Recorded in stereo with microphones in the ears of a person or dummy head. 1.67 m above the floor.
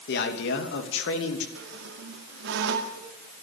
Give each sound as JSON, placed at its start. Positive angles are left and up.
{"t": 0.1, "sound": "a man speaking", "side_deg": 65, "distance_m": 2.5}
{"t": 1.6, "sound": "a squeak", "side_deg": -65, "distance_m": 2.0}